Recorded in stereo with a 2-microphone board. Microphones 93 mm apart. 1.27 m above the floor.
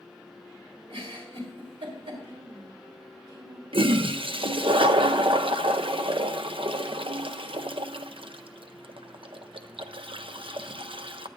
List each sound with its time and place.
0.9 s a giggle: 85° right, 4 m
2.2 s a woman speaking: 70° right (ahead or behind), 3 m
3.7 s a toilet flushing: 70° right (ahead or behind), 0.6 m